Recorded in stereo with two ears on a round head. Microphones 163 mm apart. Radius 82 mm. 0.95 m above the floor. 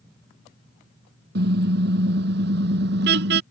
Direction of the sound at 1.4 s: 60° right (ahead or behind).